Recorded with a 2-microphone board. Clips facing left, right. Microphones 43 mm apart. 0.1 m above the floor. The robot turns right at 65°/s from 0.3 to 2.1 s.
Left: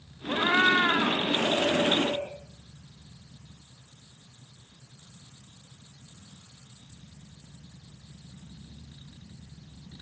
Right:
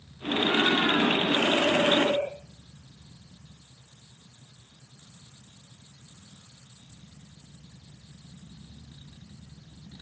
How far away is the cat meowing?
About 1.6 m.